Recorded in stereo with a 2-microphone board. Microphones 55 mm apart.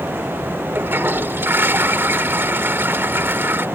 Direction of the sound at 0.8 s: 40° right (ahead or behind).